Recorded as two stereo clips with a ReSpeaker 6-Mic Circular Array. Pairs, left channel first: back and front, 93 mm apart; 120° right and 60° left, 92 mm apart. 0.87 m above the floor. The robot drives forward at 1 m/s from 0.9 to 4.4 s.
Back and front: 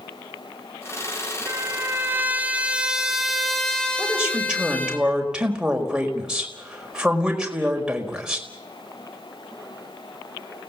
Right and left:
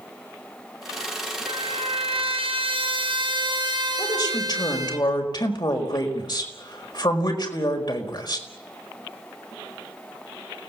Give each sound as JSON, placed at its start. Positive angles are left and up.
{"t": 1.5, "sound": "a trumpet", "azimuth_deg": 60, "distance_m": 4.0}
{"t": 4.0, "sound": "a woman speaking", "azimuth_deg": -75, "distance_m": 5.0}